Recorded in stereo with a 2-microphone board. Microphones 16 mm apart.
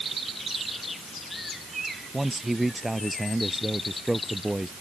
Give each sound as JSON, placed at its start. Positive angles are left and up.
{"t": 2.1, "sound": "a man speaking", "side_deg": -5}